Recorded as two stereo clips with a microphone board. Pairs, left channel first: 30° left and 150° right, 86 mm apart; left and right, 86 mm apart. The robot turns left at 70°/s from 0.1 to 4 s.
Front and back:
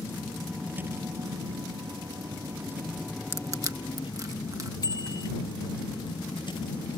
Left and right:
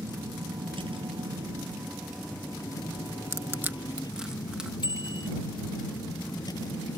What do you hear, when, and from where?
0.0 s a vehicle: 35° right; by 7.0 s 55° left
3.3 s crushing: 115° right; by 4.7 s 165° right
4.8 s a bicycle bell: 70° left